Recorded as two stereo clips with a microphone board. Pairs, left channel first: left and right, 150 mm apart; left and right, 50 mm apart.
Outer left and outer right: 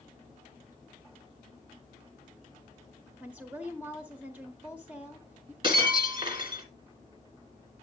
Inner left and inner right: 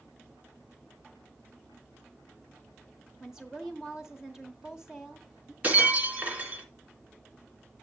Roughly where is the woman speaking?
Centre.